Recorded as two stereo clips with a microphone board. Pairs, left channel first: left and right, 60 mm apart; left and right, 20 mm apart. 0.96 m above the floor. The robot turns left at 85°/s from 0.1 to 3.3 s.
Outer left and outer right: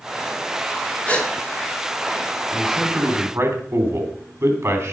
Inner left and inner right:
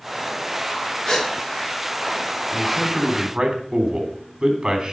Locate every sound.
1.1 s a gasp: 25° left (ahead or behind), 2.5 m; by 1.3 s 5° left (ahead or behind), 2.5 m
2.5 s a man speaking: 10° left, 3.5 m; by 4.9 s 55° right, 3.5 m